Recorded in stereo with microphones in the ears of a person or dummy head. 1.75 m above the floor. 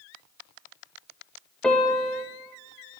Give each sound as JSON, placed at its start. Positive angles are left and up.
{"t": 1.6, "sound": "a piano", "side_deg": 5, "distance_m": 1.3}